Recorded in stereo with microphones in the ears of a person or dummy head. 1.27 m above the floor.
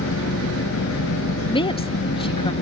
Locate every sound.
0.0 s an engine running: 70° left (ahead or behind)
1.5 s a woman speaking: 30° left (ahead or behind)